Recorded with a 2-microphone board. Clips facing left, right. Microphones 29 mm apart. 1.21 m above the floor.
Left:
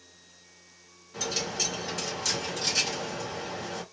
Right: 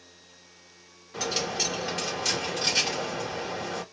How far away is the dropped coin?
About 3 m.